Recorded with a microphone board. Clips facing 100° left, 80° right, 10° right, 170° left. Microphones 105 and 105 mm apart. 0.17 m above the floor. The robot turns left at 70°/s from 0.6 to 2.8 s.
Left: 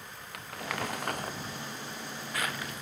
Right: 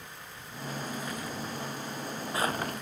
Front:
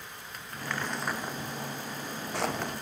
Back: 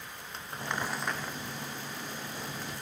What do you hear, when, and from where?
0.3 s crumpling: 105° left; by 2.8 s 45° right